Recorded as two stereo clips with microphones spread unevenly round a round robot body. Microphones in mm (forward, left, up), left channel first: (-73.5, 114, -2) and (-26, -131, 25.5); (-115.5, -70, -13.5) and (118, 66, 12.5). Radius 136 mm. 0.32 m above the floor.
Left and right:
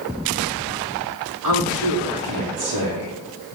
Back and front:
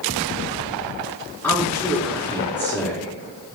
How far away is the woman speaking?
About 4 m.